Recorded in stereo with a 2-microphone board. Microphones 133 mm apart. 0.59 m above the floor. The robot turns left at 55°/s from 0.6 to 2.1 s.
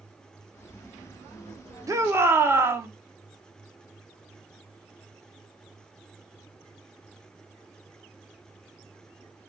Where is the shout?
25° right (ahead or behind), 1.3 m; by 2.9 s 20° right (ahead or behind), 1.3 m.